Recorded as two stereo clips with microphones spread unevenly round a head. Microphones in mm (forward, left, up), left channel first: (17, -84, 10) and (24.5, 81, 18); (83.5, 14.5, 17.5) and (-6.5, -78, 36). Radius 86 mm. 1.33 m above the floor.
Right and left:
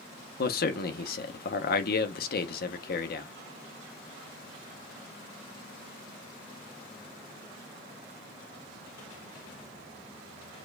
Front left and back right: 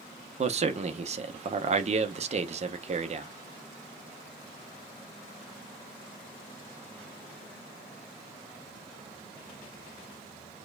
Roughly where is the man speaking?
Right.